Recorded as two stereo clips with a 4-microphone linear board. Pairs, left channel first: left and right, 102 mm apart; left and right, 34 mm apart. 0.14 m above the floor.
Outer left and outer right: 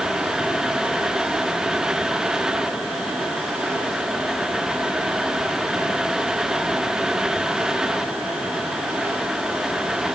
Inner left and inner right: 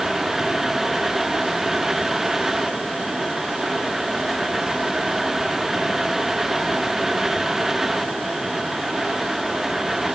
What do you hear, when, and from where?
Only background noise.